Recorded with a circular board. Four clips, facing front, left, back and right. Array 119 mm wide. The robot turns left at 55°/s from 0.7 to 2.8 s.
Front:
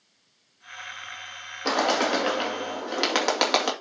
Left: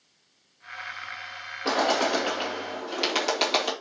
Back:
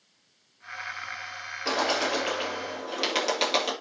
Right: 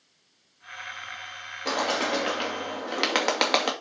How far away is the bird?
About 2.5 m.